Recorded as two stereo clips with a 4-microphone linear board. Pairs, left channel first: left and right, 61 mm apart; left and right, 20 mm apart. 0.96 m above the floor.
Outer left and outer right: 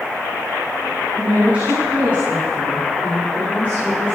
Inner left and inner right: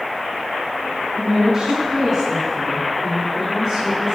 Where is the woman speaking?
25° right (ahead or behind), 7 m; by 4.2 s 35° right (ahead or behind), 11 m.